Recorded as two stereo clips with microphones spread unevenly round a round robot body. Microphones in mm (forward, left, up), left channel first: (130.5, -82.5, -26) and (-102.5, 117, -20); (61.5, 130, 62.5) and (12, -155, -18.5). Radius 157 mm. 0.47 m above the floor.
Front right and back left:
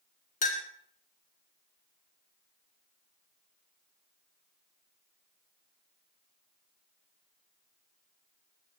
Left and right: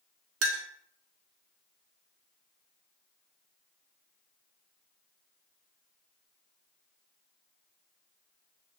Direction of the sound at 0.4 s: 105° right.